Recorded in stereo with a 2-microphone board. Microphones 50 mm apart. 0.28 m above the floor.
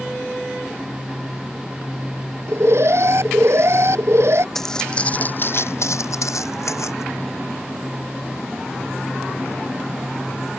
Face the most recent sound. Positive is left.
turn(degrees=70)  # may be behind; listen again after turning